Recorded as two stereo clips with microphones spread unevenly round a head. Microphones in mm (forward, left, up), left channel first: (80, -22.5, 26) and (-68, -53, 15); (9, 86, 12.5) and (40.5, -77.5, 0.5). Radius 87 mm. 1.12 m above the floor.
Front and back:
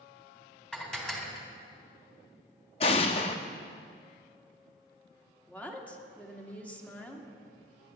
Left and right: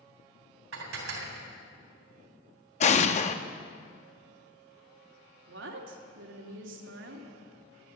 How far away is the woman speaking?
About 2.5 m.